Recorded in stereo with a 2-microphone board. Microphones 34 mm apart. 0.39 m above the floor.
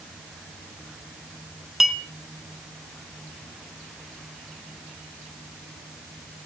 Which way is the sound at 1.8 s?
10° right (ahead or behind).